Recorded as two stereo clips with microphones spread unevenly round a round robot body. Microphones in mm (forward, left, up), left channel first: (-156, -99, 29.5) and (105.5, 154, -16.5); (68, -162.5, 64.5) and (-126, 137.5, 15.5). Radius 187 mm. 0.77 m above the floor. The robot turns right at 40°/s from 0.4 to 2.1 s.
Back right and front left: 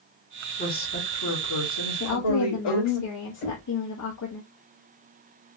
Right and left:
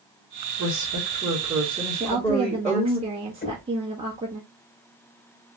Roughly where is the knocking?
Behind right.